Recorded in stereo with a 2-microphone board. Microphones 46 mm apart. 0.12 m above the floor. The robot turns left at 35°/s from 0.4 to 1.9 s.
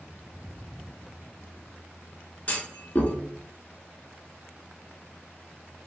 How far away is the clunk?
About 1.0 m.